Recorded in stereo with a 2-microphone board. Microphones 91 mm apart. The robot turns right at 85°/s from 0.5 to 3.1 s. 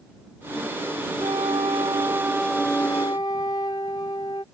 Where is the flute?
115° right; by 4.4 s 50° left.